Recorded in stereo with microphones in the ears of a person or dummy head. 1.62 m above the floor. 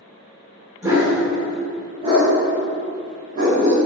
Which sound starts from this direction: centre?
A dog barking, at 0.8 s.